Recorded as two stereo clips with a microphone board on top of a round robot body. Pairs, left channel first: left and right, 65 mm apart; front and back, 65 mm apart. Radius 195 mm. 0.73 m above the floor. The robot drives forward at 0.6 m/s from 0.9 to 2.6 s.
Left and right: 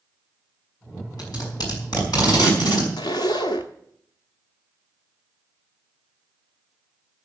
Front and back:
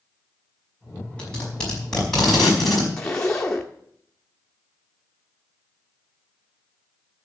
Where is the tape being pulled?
75° left, 5 m; by 2.9 s 85° left, 5 m.